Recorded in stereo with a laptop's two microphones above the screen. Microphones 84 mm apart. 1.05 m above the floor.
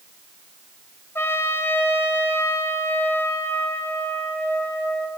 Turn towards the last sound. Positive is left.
turn(degrees=30)  # may be behind; listen again after turning